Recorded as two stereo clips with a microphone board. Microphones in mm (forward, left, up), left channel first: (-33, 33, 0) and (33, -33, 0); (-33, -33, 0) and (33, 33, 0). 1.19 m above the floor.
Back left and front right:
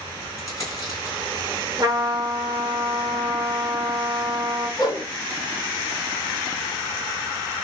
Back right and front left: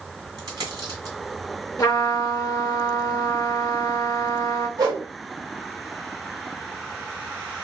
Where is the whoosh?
90° left, 1.9 m.